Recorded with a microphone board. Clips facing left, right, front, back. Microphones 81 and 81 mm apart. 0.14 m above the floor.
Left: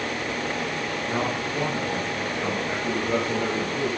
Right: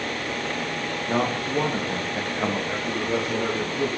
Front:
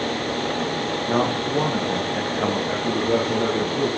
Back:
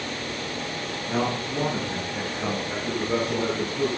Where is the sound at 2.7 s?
10° left, 10 m.